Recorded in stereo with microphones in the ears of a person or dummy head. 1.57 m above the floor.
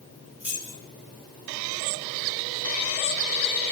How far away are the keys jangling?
About 2 m.